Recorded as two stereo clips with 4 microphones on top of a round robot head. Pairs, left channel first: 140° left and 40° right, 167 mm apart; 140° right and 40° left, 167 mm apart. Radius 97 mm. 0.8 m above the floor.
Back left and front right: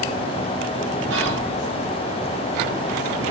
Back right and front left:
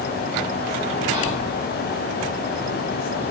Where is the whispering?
30° right, 4 m.